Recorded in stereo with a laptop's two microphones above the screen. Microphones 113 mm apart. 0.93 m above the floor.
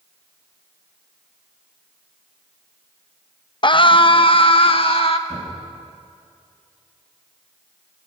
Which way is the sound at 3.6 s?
45° left (ahead or behind).